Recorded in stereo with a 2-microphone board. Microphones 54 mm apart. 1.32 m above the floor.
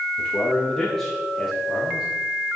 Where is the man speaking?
25° left (ahead or behind), 1.5 m; by 2.1 s 10° right (ahead or behind), 3 m.